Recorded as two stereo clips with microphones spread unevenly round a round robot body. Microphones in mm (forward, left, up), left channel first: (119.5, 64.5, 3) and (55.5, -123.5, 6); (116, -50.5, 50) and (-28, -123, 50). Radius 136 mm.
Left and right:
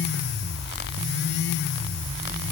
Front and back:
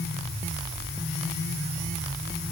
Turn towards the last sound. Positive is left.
No sound to turn to.